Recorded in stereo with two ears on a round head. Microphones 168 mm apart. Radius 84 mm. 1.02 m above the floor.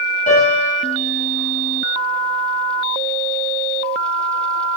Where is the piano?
45° left (ahead or behind), 2.5 m.